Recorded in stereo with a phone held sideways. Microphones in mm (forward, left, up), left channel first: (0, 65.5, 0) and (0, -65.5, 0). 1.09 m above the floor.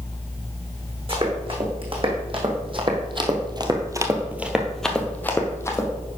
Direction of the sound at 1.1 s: 40° right (ahead or behind).